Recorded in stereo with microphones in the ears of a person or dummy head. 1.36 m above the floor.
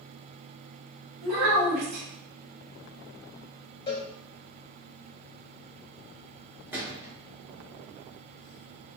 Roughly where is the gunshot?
Centre.